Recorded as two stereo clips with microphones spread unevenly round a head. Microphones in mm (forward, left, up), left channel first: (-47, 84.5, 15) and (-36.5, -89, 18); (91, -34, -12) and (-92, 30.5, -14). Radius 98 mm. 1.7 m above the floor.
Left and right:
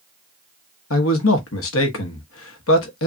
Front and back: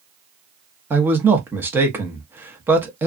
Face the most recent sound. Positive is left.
turn(degrees=80)